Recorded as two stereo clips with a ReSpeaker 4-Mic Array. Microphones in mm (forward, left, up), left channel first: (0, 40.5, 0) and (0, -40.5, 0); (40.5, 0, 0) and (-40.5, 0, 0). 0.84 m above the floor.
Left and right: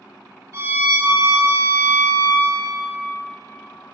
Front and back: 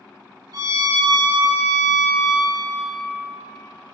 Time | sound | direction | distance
0.5 | a violin | 145° right | 2.5 m